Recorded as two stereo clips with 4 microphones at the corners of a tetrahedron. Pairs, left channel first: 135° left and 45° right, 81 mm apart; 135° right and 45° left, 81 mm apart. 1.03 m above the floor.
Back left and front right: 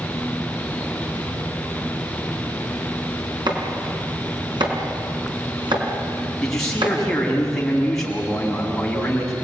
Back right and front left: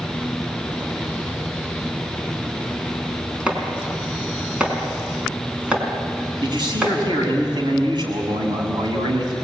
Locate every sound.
3.5 s chopping: 30° right, 4.5 m
6.4 s a man speaking: 50° left, 7.5 m